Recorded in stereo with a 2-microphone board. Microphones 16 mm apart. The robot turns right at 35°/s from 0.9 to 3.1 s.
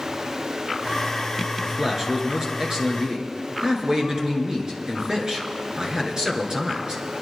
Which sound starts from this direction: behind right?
A man speaking, at 1.6 s.